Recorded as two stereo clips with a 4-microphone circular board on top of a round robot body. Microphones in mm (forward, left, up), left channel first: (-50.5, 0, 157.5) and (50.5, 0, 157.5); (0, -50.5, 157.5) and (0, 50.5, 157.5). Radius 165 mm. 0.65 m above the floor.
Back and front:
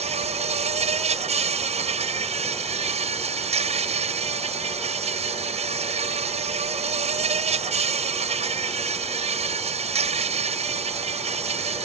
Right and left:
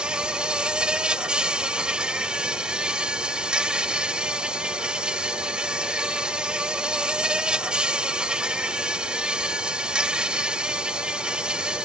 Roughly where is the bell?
I don't hear a bell.